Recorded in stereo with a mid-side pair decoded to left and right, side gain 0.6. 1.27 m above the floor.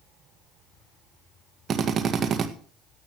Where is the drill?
40° right, 1.8 m.